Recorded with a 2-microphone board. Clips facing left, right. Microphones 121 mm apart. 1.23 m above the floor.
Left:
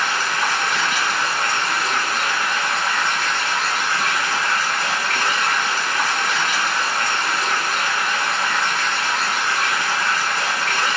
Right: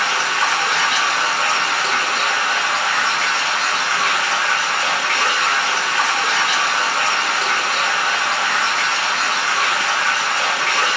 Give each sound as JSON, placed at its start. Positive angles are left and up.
{"t": 0.0, "sound": "running water", "side_deg": -75, "distance_m": 1.1}